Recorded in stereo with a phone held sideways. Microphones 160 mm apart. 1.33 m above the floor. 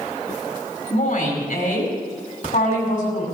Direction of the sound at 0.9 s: 65° left (ahead or behind).